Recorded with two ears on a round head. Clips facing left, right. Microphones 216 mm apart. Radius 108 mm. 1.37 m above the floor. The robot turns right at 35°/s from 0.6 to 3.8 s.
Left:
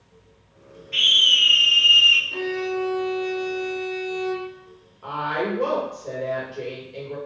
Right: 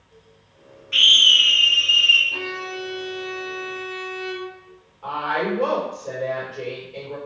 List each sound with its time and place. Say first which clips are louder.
0.9 s a scream: right 5 dB; 15° right, 0.6 m; by 2.2 s 30° left, 0.6 m
2.3 s a violin: left 7 dB; 60° left, 1.4 m; by 4.7 s 110° left, 1.4 m
5.0 s a woman speaking: right 1 dB; 25° left (ahead or behind), 1.6 m